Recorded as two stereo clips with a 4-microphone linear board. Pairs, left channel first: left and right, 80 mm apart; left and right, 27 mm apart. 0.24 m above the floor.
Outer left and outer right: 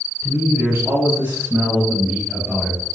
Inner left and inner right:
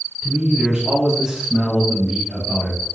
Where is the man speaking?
30° right (ahead or behind), 1.4 m; by 2.9 s centre (ahead or behind), 1.3 m.